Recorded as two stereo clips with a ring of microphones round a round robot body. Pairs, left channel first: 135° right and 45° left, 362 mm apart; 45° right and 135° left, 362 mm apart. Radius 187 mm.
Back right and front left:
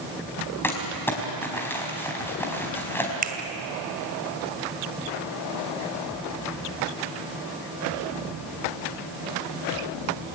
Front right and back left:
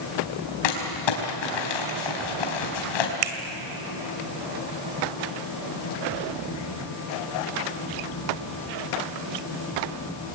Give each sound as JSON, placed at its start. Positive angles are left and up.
{"t": 0.6, "sound": "crumpling", "azimuth_deg": -50, "distance_m": 4.5}
{"t": 3.2, "sound": "a finger snap", "azimuth_deg": 115, "distance_m": 2.5}